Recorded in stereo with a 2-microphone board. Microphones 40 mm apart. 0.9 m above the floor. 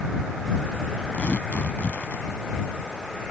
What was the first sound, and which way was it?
Tearing paper, 45° left (ahead or behind).